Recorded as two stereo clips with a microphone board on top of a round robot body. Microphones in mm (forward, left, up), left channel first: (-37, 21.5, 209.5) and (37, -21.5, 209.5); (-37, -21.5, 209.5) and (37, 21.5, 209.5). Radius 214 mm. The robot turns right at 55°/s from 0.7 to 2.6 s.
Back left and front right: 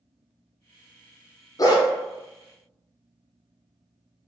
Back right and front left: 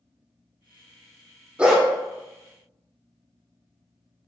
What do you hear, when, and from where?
1.6 s a dog barking: 105° left, 0.8 m; by 1.9 s 120° left, 0.8 m